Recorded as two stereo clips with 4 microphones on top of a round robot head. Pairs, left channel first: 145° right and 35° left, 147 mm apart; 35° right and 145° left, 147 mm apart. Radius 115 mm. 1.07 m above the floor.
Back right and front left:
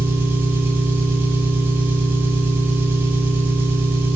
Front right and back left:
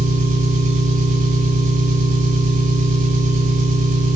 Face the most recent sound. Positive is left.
turn(degrees=110)